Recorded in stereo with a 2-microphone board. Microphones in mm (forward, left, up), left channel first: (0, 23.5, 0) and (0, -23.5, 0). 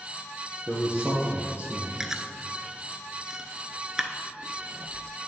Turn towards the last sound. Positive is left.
turn(degrees=-10)  # may be behind; listen again after turning